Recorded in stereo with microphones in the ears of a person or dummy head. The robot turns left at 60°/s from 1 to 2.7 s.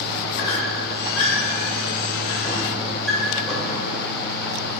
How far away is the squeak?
About 2 m.